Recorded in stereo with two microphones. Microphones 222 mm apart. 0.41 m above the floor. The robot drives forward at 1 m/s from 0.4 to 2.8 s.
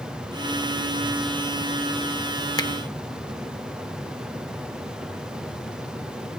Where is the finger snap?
20° left (ahead or behind), 0.5 m.